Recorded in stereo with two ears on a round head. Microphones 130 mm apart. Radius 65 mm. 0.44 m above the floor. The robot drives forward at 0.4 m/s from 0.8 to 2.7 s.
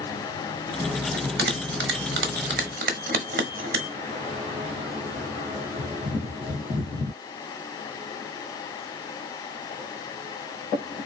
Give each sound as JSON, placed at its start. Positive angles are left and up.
{"t": 1.1, "sound": "a bell", "side_deg": -70, "distance_m": 0.9}